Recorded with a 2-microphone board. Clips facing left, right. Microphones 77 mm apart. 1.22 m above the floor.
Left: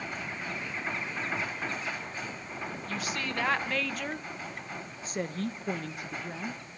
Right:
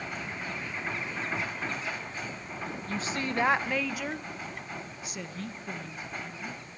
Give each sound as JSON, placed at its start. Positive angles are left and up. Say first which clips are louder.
{"t": 2.9, "sound": "a woman speaking", "louder": "right 3 dB", "side_deg": -30, "distance_m": 1.3}